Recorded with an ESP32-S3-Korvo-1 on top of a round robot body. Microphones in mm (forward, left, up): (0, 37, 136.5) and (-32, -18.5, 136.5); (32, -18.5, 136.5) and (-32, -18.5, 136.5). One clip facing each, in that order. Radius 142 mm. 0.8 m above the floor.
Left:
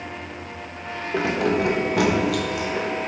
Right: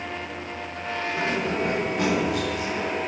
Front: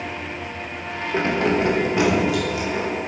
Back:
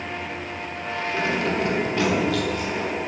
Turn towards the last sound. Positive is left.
turn(degrees=85)